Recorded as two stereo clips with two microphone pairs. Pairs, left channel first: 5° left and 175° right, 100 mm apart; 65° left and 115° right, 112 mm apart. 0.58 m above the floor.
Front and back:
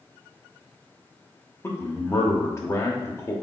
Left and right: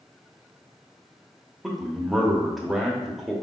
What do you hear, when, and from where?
1.6 s a man speaking: 20° right, 0.7 m